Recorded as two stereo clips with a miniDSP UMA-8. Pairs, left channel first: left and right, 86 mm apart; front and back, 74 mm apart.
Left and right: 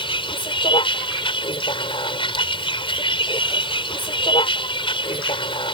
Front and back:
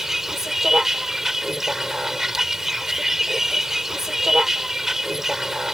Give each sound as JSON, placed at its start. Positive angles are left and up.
{"t": 0.0, "sound": "a vehicle", "azimuth_deg": 95}